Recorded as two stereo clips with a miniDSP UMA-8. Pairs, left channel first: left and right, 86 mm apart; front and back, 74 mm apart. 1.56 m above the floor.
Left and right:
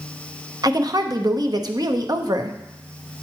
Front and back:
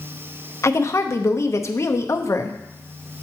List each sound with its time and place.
0.6 s a woman speaking: 50° right, 0.6 m